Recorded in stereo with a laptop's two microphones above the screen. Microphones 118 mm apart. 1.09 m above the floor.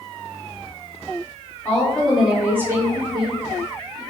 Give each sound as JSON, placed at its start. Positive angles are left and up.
{"t": 1.6, "sound": "a woman speaking", "side_deg": 10, "distance_m": 0.9}